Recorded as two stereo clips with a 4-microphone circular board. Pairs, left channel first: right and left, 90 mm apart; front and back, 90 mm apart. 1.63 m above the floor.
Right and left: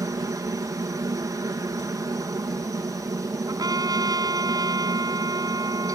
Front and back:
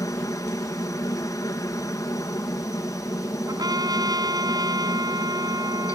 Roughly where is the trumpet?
Behind left.